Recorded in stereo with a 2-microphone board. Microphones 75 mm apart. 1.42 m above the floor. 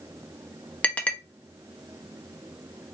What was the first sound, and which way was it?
A clink, 20° left (ahead or behind).